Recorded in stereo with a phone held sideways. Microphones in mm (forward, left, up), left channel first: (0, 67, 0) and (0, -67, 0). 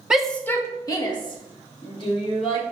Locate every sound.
0.1 s a shout: 5° right (ahead or behind), 0.8 m; by 2.6 s 45° left (ahead or behind), 3 m